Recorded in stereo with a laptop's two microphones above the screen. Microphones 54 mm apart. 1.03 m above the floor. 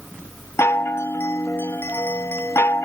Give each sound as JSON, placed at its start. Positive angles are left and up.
{"t": 0.6, "sound": "a chime", "side_deg": 55, "distance_m": 0.7}